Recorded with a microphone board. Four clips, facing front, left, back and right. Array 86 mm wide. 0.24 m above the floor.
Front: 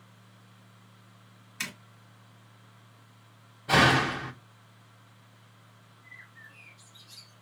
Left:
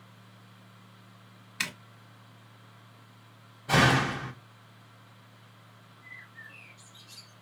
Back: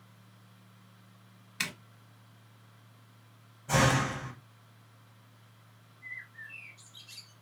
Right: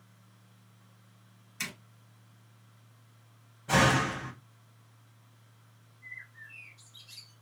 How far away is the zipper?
About 0.9 m.